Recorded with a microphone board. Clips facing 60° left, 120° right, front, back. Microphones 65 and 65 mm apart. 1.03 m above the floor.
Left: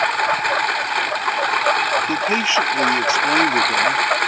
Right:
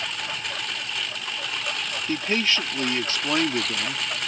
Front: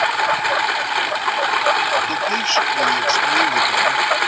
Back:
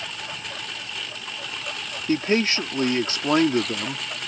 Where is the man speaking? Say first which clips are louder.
Left 6 dB, front 2 dB; 135° left.